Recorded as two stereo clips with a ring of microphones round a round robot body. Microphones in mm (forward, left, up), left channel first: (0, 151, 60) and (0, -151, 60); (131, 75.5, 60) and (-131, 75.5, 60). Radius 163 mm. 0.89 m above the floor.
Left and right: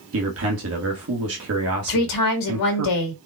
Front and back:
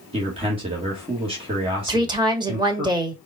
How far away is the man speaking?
About 1.3 m.